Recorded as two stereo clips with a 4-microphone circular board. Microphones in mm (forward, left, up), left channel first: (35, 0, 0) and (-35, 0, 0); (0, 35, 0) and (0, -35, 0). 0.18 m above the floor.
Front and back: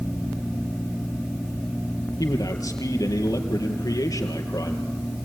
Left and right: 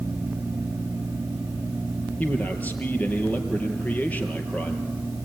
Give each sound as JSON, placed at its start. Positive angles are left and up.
{"t": 2.2, "sound": "a man speaking", "azimuth_deg": 20, "distance_m": 4.0}